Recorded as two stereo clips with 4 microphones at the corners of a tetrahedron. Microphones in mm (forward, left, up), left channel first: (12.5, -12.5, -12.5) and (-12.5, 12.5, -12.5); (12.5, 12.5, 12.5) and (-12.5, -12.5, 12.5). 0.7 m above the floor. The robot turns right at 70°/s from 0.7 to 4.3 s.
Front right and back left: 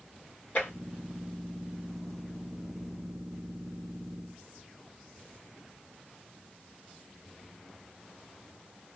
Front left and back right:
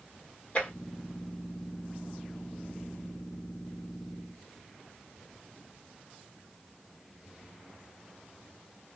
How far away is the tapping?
About 1.4 m.